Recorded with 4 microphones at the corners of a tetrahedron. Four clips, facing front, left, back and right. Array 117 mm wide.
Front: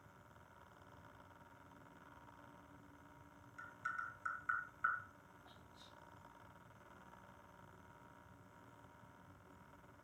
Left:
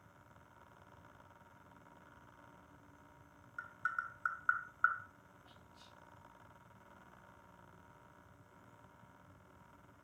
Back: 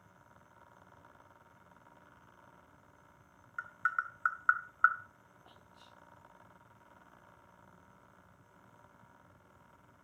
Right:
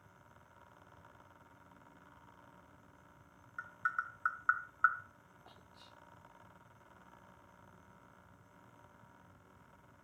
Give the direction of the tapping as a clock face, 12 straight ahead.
6 o'clock.